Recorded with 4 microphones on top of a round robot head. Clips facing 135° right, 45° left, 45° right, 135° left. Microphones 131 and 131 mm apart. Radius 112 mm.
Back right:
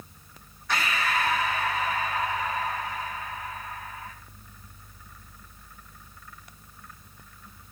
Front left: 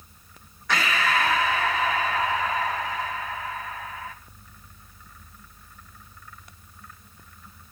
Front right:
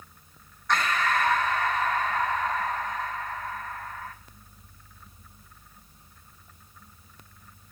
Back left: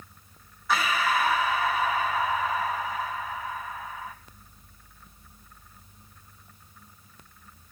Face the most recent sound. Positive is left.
turn(degrees=50)